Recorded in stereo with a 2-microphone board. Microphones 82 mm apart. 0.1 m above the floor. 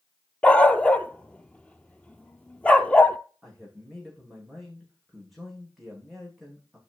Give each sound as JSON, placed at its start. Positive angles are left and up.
{"t": 0.4, "sound": "a dog barking", "side_deg": 15, "distance_m": 0.7}
{"t": 3.4, "sound": "a man speaking", "side_deg": 0, "distance_m": 6.0}